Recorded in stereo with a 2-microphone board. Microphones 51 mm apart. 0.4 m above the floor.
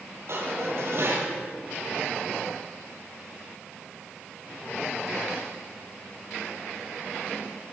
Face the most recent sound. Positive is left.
turn(degrees=-60)  # may be behind; listen again after turning